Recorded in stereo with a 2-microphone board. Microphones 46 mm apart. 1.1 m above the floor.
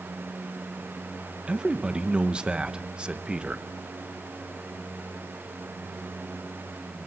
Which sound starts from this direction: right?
A man speaking, at 1.5 s.